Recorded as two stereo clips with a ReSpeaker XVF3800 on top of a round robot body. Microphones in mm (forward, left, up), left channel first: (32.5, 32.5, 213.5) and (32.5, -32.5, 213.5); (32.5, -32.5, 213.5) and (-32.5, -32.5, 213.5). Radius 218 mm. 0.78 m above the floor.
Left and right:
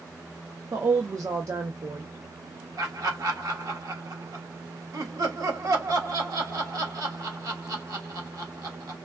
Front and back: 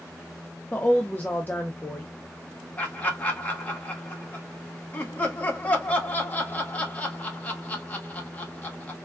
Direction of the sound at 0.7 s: 60° right.